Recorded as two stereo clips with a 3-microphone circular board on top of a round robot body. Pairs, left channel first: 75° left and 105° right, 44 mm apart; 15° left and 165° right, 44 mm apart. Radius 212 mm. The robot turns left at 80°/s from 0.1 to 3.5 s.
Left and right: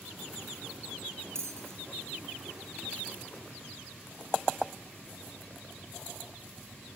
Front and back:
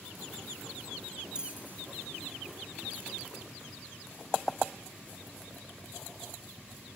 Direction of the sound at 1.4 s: 90° right.